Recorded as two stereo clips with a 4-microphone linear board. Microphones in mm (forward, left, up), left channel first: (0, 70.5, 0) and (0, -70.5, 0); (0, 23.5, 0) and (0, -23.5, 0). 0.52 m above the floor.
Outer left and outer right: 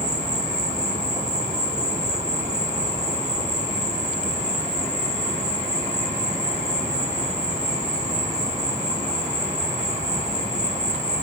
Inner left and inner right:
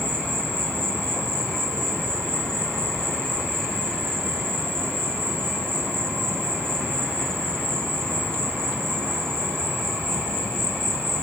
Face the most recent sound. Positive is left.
turn(degrees=-55)  # may be behind; listen again after turning